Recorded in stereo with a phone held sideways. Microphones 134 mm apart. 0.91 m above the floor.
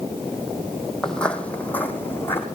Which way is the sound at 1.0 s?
5° left (ahead or behind).